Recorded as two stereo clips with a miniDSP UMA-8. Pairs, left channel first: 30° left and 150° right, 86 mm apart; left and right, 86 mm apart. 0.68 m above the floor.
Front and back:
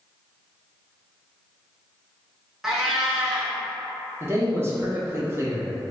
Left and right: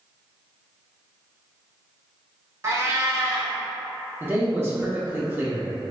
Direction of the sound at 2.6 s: 65° right.